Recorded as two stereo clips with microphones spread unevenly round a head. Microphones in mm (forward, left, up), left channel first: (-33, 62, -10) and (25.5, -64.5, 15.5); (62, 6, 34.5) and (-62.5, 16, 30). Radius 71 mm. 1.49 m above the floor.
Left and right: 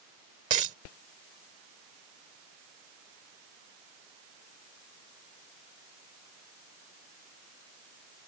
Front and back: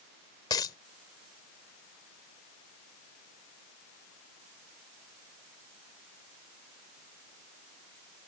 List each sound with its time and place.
0.5 s a dropped coin: 60° right